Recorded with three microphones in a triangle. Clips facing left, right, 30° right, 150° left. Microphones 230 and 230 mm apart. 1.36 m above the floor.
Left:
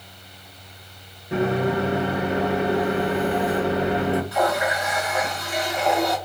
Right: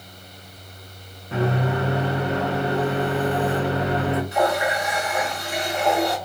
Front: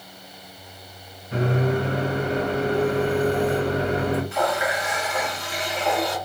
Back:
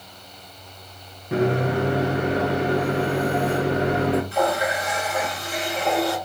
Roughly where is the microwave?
Behind.